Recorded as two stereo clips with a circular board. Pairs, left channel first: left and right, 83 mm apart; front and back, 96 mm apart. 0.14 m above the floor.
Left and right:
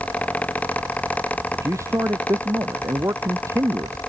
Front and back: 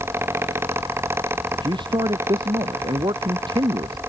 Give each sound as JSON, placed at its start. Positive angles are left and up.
{"t": 1.5, "sound": "a man speaking", "azimuth_deg": -145}